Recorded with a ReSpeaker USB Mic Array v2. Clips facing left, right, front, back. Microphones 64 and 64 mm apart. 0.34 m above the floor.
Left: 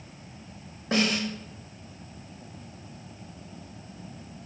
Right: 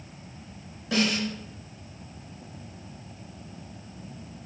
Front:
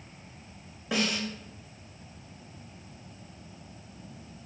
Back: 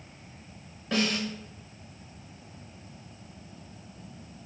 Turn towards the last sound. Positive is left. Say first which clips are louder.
# even, back 2 dB
turn(degrees=75)